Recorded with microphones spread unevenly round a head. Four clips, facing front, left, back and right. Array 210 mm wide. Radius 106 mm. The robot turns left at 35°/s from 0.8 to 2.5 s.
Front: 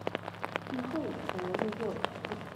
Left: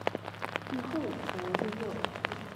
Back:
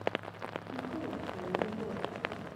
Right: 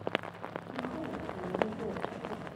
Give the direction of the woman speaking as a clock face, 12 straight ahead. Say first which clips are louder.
Left 4 dB, front 3 dB; 11 o'clock.